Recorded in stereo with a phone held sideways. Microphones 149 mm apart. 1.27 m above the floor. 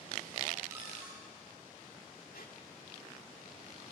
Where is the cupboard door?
15° right (ahead or behind), 9 m.